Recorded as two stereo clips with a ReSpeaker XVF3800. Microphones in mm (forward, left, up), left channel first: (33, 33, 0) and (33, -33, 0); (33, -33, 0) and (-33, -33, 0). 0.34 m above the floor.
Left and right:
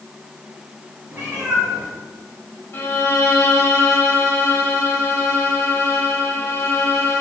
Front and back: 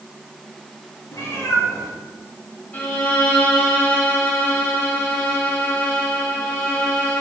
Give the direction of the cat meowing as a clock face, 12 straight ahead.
1 o'clock.